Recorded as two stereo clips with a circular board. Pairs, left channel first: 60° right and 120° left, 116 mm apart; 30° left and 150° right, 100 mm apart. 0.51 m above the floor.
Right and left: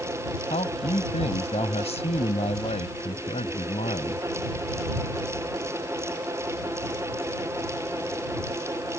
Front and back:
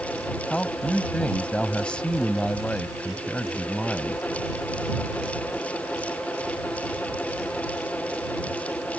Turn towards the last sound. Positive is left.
turn(degrees=-50)